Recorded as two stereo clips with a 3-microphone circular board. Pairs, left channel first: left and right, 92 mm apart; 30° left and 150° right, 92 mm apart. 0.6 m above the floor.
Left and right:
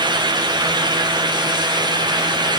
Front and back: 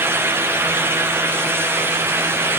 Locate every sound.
Only background noise.